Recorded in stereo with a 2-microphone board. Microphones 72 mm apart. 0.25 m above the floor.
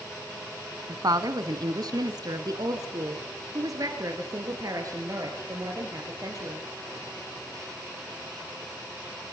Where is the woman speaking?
60° right (ahead or behind), 1.7 m; by 6.7 s 45° right (ahead or behind), 5.5 m.